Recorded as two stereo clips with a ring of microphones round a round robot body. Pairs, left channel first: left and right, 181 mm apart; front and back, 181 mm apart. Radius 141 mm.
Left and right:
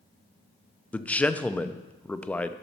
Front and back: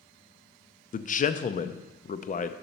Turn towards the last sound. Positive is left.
turn(degrees=10)